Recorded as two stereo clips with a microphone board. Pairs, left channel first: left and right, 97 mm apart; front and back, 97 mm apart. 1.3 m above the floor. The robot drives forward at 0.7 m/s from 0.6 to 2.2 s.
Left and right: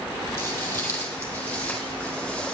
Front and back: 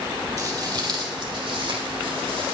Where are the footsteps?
145° left, 1.9 m; by 2.5 s 165° left, 4 m.